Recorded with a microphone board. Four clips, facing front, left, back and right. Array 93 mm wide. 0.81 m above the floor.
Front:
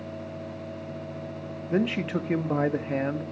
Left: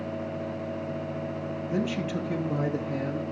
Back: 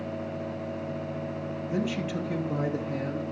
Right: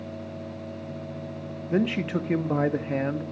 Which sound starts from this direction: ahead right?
A man speaking, at 1.7 s.